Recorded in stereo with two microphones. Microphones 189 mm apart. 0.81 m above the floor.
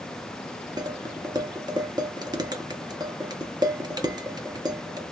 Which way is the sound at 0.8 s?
20° right (ahead or behind).